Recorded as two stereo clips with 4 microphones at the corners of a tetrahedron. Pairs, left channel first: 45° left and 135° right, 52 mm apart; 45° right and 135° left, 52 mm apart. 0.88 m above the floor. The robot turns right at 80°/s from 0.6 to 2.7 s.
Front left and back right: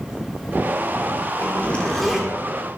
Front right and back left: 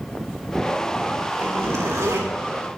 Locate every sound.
1.4 s a zipper: 80° left, 3 m; by 2.3 s 155° left, 3 m